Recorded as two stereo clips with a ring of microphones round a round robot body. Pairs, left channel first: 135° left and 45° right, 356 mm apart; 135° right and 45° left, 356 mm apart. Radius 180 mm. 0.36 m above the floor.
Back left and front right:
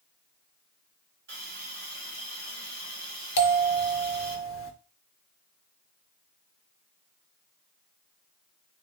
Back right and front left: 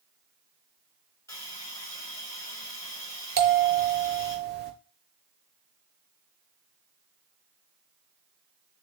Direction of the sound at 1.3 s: 60° right.